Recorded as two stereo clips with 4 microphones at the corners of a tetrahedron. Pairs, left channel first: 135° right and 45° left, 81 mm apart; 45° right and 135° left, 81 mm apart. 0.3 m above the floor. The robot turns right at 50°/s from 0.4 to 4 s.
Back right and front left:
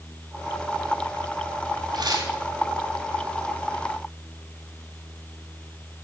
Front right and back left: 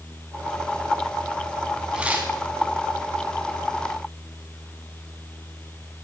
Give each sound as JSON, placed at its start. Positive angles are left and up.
{"t": 1.9, "sound": "tearing paper", "azimuth_deg": 55, "distance_m": 2.5}